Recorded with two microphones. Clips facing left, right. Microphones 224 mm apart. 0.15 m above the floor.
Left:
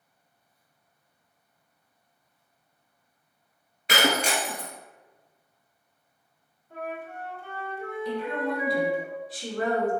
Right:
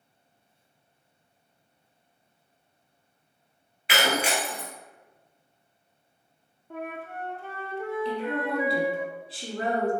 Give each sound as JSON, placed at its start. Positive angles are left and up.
{"t": 3.9, "sound": "breaking glass", "side_deg": 40, "distance_m": 0.6}
{"t": 6.7, "sound": "a flute", "side_deg": -80, "distance_m": 0.6}
{"t": 8.1, "sound": "a woman speaking", "side_deg": -30, "distance_m": 1.1}